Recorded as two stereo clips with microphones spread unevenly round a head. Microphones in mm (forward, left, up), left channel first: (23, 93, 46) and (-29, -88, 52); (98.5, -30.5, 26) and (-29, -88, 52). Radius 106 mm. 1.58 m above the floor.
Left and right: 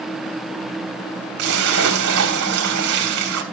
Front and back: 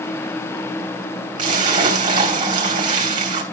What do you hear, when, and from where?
1.4 s a splash: 140° right, 3 m